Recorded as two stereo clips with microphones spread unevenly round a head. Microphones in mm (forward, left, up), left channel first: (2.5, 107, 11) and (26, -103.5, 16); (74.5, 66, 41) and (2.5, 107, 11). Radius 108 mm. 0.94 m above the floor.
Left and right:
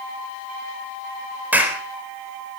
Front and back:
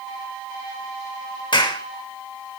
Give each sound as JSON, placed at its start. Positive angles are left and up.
{"t": 1.5, "sound": "a clap", "azimuth_deg": 0, "distance_m": 4.0}